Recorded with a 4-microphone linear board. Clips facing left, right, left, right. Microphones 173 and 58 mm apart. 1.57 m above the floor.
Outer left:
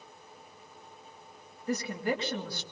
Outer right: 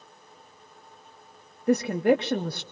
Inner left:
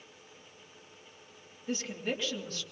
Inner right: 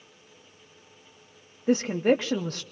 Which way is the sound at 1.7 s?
60° right (ahead or behind).